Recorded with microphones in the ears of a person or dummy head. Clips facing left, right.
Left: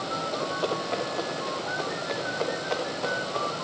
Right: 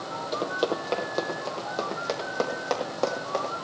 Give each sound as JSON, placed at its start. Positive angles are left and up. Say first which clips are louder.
{"t": 0.3, "sound": "running footsteps", "louder": "right 3 dB", "side_deg": -55, "distance_m": 2.5}